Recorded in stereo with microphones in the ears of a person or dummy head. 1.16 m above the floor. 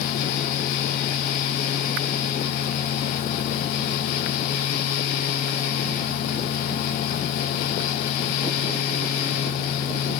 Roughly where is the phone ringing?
No phone ringing in this recording.